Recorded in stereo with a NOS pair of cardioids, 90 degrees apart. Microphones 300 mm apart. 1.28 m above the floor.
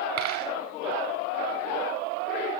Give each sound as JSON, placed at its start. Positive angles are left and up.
{"t": 0.2, "sound": "a dropped coin", "azimuth_deg": -60, "distance_m": 4.5}